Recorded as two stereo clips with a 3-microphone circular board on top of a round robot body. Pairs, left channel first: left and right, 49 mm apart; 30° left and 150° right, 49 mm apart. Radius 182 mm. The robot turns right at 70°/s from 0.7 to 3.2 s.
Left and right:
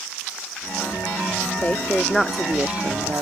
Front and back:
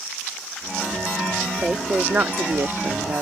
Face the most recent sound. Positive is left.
turn(degrees=-115)